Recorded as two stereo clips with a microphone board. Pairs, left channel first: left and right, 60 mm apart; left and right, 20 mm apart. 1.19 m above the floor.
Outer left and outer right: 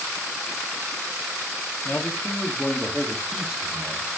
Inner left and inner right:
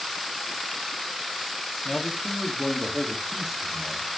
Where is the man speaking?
30° left (ahead or behind), 2 m; by 4.1 s 15° right (ahead or behind), 2 m.